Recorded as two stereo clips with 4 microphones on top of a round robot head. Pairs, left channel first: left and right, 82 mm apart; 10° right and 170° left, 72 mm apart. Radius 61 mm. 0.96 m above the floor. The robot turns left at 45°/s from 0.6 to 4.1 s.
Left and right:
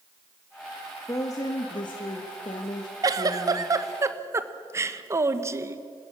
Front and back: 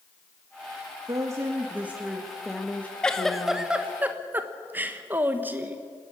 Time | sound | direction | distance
1.1 | a woman speaking | 140° left | 1.6 m
3.0 | a giggle | 80° right | 1.1 m